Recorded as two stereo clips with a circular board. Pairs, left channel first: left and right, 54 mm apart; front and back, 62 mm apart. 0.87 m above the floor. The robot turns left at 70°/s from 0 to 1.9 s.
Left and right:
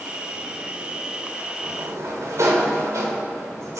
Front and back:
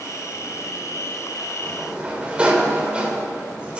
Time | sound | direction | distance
1.6 | a sliding door | 90° right | 2.5 m